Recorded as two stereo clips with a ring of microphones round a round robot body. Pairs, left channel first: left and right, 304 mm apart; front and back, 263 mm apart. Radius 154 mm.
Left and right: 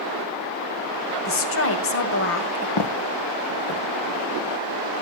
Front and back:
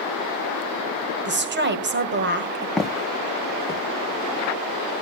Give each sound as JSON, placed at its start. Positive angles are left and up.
{"t": 1.2, "sound": "a woman speaking", "azimuth_deg": 135, "distance_m": 2.0}
{"t": 2.8, "sound": "footsteps", "azimuth_deg": 90, "distance_m": 1.1}